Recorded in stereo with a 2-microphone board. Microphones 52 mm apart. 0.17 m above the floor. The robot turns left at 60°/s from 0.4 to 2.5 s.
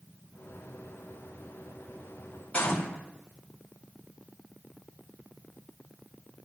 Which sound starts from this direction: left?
A gunshot, at 2.5 s.